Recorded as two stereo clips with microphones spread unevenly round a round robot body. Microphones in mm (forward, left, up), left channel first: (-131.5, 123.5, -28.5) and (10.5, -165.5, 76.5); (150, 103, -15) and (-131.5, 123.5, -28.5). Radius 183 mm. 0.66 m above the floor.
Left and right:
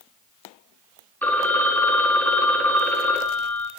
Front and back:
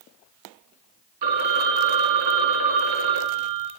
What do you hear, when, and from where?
1.2 s a phone ringing: 160° right, 0.9 m